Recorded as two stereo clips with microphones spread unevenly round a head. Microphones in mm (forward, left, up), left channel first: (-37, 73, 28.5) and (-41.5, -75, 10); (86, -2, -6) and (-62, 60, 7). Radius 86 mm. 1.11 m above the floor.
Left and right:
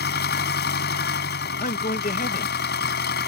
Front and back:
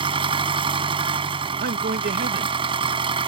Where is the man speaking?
125° left.